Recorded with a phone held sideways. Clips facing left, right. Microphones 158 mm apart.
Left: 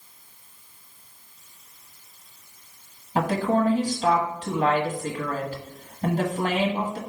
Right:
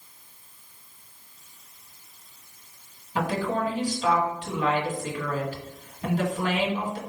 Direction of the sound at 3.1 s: 40° left (ahead or behind).